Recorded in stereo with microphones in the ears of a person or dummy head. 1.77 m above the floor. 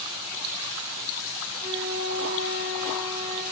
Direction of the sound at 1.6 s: 15° right (ahead or behind).